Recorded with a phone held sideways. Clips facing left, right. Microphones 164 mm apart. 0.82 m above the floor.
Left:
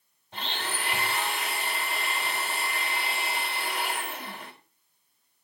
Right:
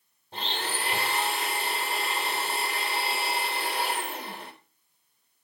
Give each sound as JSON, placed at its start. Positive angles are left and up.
{"t": 0.3, "sound": "a blender", "side_deg": -35, "distance_m": 3.5}